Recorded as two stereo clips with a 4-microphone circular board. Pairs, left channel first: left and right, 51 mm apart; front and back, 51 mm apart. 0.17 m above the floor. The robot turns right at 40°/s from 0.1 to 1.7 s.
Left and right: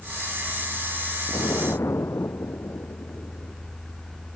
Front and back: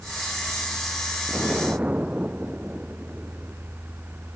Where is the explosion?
100° left; by 3.5 s 115° left.